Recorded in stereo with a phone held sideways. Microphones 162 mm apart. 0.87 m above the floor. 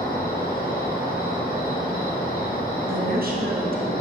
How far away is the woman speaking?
About 0.8 m.